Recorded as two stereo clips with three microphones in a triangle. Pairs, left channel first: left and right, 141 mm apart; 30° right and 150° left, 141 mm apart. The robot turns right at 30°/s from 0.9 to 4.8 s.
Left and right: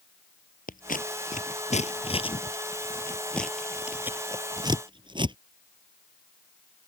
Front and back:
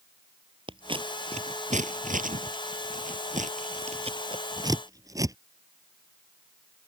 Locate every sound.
0.7 s scissors: 100° left; by 5.4 s 145° right